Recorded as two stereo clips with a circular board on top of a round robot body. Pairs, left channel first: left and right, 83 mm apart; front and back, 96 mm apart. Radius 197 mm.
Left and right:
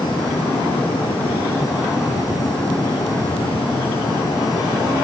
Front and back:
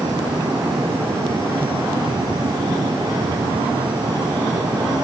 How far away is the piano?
I don't hear a piano.